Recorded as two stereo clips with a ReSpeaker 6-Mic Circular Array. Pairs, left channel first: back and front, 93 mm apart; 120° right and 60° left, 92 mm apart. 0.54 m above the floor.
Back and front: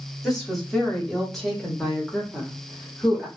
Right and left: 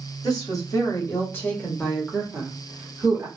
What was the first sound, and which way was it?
A woman speaking, 90° right.